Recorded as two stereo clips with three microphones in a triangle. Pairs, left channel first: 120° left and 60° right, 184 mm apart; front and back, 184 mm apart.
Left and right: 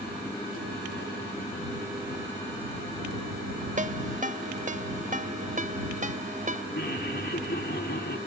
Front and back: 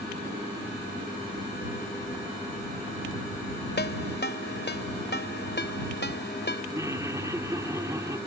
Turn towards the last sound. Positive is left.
turn(degrees=105)